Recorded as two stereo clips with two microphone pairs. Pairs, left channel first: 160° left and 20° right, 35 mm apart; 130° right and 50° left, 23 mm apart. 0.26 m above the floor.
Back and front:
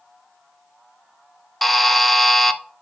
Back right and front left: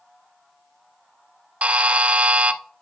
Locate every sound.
1.6 s a buzzer: 70° left, 0.6 m